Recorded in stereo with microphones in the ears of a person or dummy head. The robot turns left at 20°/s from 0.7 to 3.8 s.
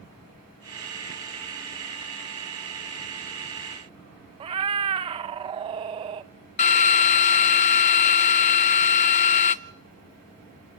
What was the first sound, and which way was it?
A cat meowing, 25° right (ahead or behind).